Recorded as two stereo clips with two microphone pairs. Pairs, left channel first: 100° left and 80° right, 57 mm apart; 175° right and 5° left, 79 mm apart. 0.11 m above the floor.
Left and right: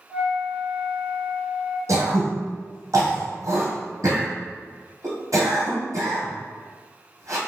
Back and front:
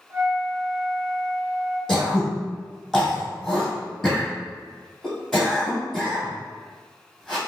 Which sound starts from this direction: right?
Throat clearing, at 1.9 s.